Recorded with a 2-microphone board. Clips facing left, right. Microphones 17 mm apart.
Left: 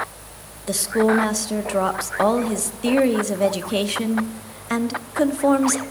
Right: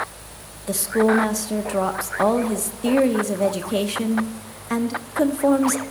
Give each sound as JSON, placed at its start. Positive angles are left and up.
{"t": 0.7, "sound": "a woman speaking", "side_deg": 35, "distance_m": 0.8}